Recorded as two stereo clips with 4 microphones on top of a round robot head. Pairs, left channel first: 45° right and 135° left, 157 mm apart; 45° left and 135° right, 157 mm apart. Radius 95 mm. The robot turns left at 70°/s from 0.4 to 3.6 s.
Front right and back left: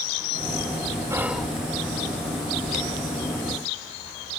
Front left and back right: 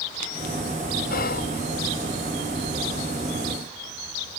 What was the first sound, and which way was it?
Whispering, 65° left.